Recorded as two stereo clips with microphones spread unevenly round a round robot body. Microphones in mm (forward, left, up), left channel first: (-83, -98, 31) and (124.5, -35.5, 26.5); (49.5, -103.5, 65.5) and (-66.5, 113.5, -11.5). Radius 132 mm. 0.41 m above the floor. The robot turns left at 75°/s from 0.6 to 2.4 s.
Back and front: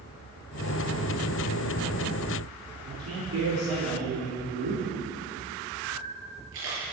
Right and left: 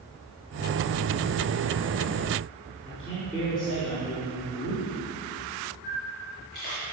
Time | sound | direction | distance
2.9 | a man speaking | 15° left | 4.5 m
5.8 | a camera shutter | 10° right | 5.5 m